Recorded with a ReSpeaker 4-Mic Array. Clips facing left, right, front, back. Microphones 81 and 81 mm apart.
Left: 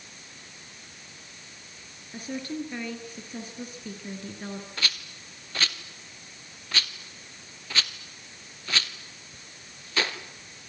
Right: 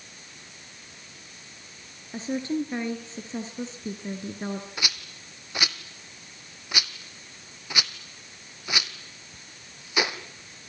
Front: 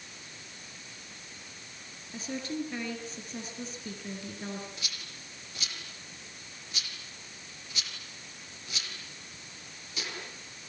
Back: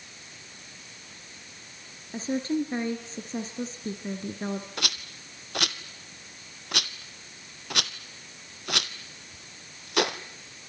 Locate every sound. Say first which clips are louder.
2.1 s a woman speaking: right 6 dB, back 8 dB; 145° right, 2 m
4.8 s a rattle: even, back 9 dB; 165° right, 1.3 m